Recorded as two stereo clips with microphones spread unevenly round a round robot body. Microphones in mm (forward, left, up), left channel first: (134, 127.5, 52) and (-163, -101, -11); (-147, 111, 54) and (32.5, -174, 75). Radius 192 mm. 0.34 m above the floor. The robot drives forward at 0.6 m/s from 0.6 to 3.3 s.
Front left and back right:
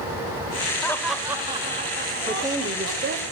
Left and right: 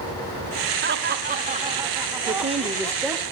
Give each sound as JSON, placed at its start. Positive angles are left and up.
{"t": 0.8, "sound": "laughter", "azimuth_deg": -55, "distance_m": 1.1}
{"t": 2.3, "sound": "a woman speaking", "azimuth_deg": -85, "distance_m": 0.9}